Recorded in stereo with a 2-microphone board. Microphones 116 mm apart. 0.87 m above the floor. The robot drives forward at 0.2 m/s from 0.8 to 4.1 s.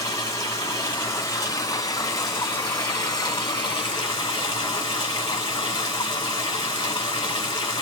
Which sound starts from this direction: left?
Running water, at 0.0 s.